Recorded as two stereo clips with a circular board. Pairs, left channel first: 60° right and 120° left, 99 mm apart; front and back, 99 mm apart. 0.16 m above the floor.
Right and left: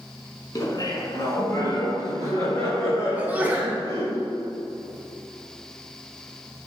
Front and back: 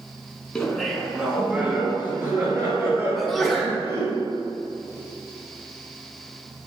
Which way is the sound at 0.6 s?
80° right.